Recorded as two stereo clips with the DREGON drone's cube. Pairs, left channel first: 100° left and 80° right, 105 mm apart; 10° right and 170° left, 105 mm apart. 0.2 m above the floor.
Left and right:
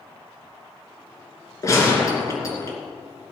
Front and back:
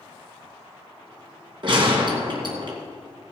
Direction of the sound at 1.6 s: 150° left.